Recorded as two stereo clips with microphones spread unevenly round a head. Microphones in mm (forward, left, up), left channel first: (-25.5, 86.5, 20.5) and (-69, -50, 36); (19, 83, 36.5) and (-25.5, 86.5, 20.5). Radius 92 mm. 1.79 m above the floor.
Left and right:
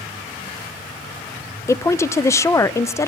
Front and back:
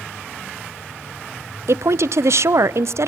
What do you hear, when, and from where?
1.7 s a woman speaking: 145° left, 0.7 m